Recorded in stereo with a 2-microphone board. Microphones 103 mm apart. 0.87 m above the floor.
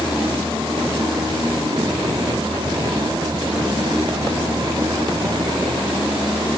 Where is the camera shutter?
No camera shutter in this recording.